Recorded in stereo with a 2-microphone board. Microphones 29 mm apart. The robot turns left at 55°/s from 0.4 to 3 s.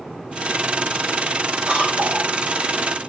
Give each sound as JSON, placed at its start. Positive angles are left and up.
{"t": 1.7, "sound": "a cough", "azimuth_deg": -40, "distance_m": 4.5}